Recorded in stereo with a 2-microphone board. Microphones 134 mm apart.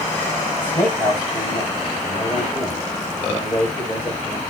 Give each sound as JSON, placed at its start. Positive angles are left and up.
{"t": 0.6, "sound": "a man speaking", "side_deg": 15, "distance_m": 9.0}